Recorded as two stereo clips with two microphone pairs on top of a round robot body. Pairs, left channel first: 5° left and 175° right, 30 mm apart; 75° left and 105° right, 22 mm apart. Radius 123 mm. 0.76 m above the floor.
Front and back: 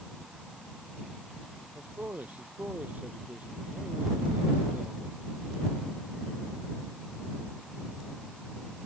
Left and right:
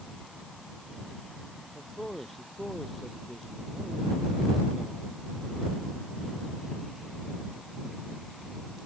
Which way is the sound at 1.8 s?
155° left.